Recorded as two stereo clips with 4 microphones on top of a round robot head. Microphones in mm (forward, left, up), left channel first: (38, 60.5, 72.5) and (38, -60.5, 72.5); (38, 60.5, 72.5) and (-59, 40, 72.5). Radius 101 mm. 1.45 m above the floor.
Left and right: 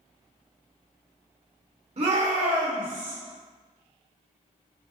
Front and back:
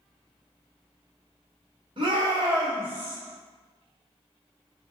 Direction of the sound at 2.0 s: 125° right.